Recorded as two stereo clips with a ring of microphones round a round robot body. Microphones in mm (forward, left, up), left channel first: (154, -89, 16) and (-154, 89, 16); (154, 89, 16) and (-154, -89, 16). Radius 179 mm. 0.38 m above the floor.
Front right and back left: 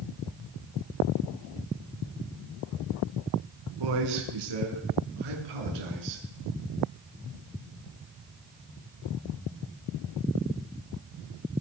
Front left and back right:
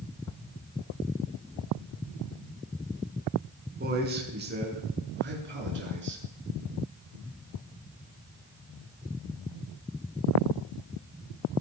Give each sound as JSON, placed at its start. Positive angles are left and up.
{"t": 3.8, "sound": "a man speaking", "azimuth_deg": 145, "distance_m": 5.0}